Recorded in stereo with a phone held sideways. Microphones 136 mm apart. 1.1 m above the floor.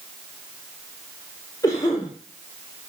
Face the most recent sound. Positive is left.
turn(degrees=25)  # may be behind; listen again after turning